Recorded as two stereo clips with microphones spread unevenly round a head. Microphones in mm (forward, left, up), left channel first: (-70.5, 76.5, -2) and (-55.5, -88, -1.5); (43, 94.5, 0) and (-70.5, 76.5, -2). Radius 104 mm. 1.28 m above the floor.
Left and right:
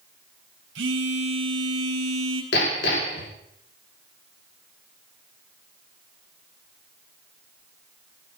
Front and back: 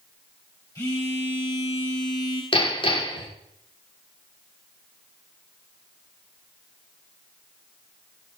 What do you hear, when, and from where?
0.8 s a phone buzzing: 65° right, 4 m
2.5 s hammering: 50° left, 3.5 m